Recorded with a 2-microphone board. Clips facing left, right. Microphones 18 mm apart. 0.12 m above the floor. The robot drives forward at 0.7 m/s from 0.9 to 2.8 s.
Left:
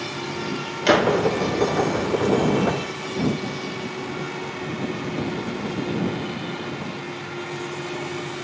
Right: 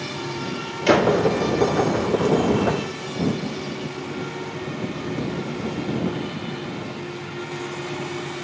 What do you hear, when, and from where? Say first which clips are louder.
0.9 s a gunshot: right 1 dB; 25° left (ahead or behind), 1.4 m